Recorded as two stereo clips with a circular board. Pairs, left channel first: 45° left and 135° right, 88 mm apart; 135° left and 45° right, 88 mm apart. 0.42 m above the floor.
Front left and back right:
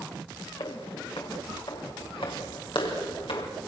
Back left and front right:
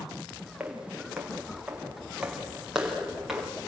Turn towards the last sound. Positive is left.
turn(degrees=40)